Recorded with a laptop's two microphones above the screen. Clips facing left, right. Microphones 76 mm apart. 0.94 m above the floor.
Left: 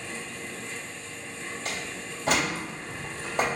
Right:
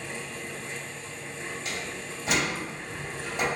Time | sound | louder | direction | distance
0.0 | a fan | right 1 dB | 35° right (ahead or behind) | 1.2 m
1.6 | a door slam | even | 65° left (ahead or behind) | 2.0 m